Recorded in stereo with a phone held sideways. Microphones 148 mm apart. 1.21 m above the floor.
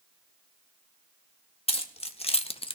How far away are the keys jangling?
About 0.9 m.